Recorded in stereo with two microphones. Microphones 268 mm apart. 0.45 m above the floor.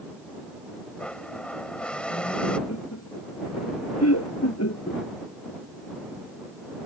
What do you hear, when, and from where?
1.0 s a blender: 5° left (ahead or behind)
2.7 s laughter: 70° left (ahead or behind)